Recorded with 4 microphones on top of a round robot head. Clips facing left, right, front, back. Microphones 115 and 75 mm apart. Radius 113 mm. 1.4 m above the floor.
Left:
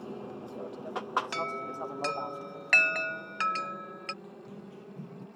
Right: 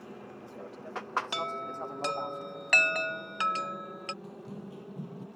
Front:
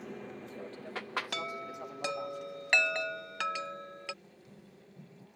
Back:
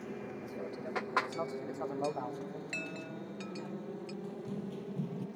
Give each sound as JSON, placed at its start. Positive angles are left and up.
{"t": 0.0, "sound": "an aircraft", "azimuth_deg": 95}
{"t": 1.3, "sound": "a chime", "azimuth_deg": -15}
{"t": 4.2, "sound": "running footsteps", "azimuth_deg": -155}